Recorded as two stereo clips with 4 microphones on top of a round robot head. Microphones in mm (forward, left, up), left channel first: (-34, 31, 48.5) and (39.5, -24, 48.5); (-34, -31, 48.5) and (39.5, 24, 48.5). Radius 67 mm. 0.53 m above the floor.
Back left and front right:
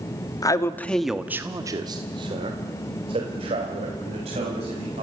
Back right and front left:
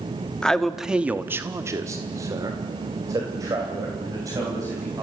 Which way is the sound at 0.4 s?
140° left.